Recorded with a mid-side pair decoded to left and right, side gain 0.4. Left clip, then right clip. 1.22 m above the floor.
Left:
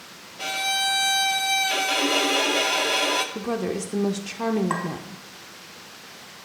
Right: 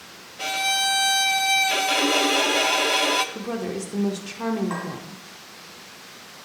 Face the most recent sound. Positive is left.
turn(degrees=70)